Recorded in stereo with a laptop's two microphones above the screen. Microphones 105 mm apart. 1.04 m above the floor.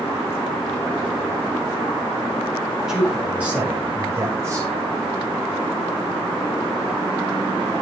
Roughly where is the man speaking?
Centre.